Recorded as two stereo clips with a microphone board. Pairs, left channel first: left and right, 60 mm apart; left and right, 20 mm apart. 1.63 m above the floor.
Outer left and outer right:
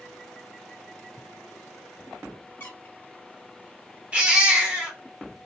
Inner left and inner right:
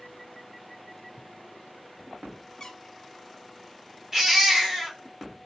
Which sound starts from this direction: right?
A baby crying, at 4.1 s.